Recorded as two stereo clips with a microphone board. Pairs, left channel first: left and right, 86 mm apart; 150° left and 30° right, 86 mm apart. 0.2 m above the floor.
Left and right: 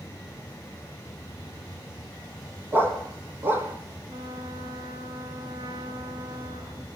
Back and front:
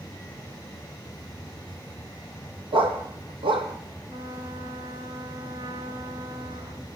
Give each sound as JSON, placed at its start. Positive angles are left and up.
{"t": 2.7, "sound": "a dog barking", "azimuth_deg": -25, "distance_m": 3.5}
{"t": 4.1, "sound": "a trumpet", "azimuth_deg": -65, "distance_m": 2.5}